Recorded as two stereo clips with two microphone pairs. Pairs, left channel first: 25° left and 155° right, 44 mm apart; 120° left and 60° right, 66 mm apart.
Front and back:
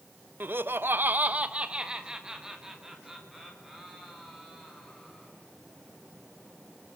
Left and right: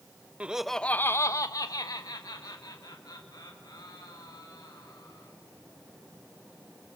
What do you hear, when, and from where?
0.4 s laughter: 125° right, 0.7 m; by 5.3 s 120° left, 4 m